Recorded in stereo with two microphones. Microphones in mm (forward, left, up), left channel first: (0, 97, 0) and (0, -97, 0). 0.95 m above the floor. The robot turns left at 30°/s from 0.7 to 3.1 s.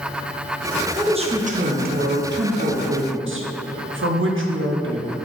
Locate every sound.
0.9 s a woman speaking: 25° right, 0.5 m; by 5.2 s 90° right, 0.5 m